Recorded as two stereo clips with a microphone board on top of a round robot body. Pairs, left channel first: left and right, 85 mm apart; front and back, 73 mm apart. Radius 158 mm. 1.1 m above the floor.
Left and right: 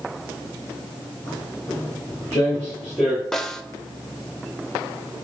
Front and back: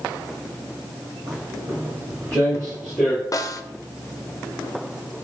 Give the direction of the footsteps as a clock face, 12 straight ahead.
7 o'clock.